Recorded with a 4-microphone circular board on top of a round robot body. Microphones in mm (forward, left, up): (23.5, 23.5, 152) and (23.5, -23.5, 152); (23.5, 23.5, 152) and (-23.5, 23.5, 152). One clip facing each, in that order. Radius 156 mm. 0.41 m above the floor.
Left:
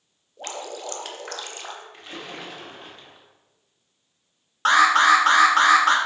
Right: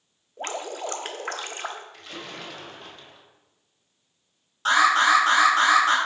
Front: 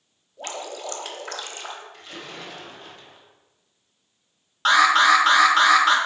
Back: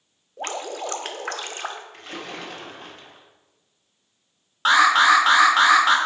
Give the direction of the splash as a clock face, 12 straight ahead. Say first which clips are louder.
Left 1 dB, back 3 dB; 7 o'clock.